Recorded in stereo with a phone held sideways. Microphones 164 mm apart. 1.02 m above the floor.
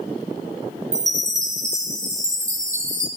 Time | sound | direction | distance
0.9 | a chime | 45° right (ahead or behind) | 3 m